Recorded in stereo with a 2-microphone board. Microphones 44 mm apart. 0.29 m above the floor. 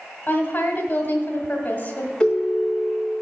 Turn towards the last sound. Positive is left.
turn(degrees=10)  # may be behind; listen again after turning